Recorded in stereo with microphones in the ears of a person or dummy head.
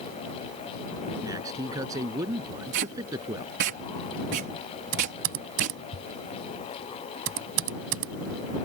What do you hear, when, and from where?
1.2 s a man speaking: 20° right (ahead or behind)
2.7 s tape being pulled: 65° right (ahead or behind)
4.9 s typing on a keyboard: 70° right (ahead or behind)